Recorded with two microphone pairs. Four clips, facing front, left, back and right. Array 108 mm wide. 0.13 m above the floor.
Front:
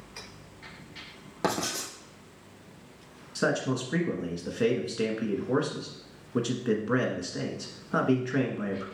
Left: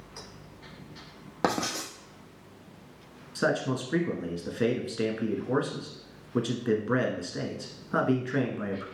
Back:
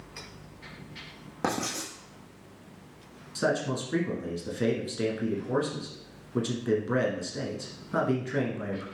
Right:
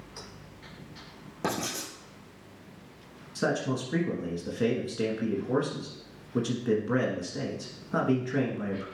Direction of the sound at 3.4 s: 60° left.